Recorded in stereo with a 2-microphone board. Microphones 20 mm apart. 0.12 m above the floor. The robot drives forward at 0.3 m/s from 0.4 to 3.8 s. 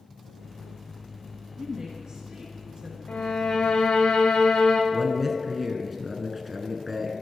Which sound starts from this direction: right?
A woman speaking, at 1.6 s.